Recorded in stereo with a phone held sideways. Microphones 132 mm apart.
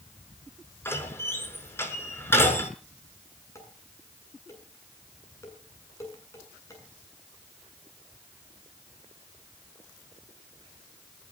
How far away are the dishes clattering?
About 8 m.